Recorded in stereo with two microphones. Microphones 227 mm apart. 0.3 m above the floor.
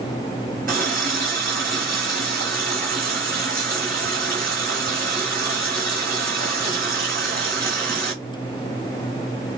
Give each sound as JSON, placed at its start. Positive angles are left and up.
{"t": 0.7, "sound": "a running tap", "side_deg": -40, "distance_m": 1.4}